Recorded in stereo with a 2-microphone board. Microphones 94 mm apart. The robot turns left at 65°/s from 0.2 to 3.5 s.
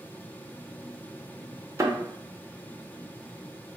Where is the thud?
30° right (ahead or behind), 0.6 m; by 2.0 s 20° right (ahead or behind), 0.6 m.